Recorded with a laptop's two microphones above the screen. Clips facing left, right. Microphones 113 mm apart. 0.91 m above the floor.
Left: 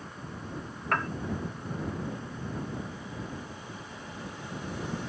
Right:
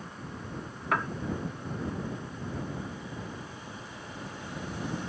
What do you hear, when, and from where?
0.9 s a piano: 5° right (ahead or behind)